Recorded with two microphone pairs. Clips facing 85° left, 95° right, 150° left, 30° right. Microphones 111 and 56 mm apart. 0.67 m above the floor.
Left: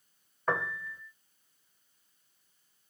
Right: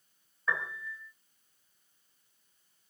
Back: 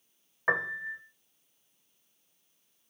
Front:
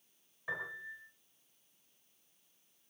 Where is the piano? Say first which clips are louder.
Left 4 dB, back 11 dB; 125° left, 1.4 m.